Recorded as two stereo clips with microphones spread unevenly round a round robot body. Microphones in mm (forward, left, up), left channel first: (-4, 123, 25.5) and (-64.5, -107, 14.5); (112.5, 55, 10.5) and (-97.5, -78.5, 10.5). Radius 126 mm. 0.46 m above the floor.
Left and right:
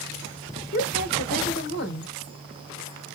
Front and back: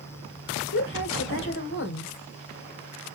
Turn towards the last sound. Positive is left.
turn(degrees=40)